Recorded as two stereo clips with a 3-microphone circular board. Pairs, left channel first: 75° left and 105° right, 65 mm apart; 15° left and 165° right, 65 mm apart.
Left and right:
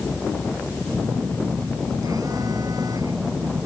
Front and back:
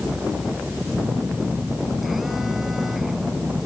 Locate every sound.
0.9 s a phone buzzing: 80° right